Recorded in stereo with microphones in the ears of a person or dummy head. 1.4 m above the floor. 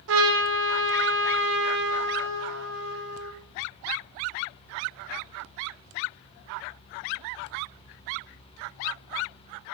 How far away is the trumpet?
About 1.6 m.